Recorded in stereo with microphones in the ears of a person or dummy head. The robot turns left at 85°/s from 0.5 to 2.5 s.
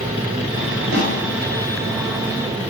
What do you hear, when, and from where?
0.9 s a snare drum: 65° right (ahead or behind), 1.9 m; by 1.2 s 45° right (ahead or behind), 1.9 m